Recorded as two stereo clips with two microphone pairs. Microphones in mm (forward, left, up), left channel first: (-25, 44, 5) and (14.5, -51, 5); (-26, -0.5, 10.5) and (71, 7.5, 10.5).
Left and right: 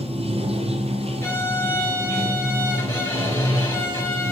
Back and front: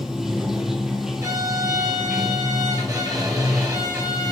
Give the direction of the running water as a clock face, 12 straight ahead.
3 o'clock.